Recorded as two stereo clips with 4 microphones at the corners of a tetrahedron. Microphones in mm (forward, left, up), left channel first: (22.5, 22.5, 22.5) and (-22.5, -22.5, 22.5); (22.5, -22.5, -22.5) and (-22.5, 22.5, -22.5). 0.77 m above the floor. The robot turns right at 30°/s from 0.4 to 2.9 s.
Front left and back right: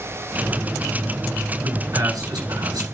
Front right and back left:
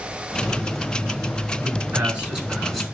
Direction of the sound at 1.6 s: 175° right.